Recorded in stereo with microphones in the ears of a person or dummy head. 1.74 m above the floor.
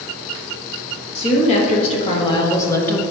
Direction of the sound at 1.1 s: 40° left (ahead or behind).